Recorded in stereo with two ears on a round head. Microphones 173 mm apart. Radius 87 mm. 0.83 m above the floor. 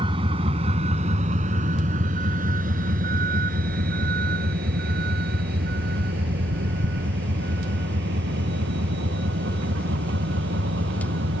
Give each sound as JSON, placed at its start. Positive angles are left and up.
{"t": 0.0, "sound": "a vehicle", "side_deg": -25}